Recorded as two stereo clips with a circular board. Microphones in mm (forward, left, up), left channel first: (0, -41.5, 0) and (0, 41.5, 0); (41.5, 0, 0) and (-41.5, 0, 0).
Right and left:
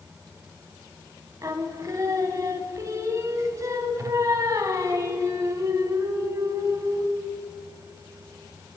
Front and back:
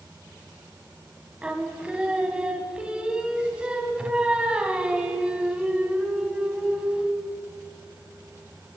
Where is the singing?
110° left, 0.7 m.